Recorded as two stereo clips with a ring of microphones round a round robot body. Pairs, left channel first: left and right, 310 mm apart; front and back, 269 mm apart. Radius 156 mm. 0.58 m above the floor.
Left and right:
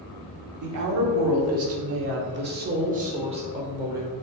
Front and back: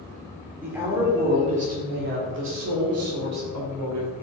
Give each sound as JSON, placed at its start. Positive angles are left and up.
{"t": 0.6, "sound": "a woman speaking", "azimuth_deg": -95, "distance_m": 1.6}